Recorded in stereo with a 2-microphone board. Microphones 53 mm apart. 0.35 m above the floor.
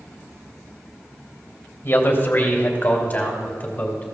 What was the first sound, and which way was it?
A man speaking, 45° left (ahead or behind).